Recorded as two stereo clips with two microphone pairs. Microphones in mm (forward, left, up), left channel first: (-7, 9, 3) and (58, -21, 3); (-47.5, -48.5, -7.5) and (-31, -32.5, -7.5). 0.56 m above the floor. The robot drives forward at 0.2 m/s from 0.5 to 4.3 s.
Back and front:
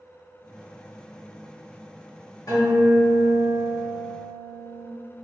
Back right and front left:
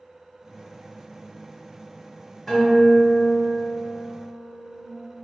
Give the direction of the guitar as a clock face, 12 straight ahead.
7 o'clock.